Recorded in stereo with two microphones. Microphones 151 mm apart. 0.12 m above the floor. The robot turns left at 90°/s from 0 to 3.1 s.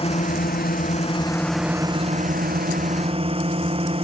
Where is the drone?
140° left; by 4.0 s 140° right.